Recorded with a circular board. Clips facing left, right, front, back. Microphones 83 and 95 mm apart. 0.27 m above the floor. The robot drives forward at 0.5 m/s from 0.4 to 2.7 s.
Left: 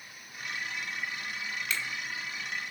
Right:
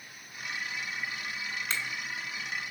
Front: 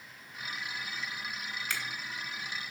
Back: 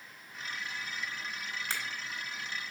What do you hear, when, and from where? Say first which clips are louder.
1.7 s a finger snap: even, even; 140° right, 1.2 m